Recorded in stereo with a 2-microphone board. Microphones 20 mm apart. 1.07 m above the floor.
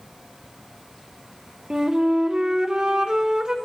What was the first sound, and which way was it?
A flute, 40° right (ahead or behind).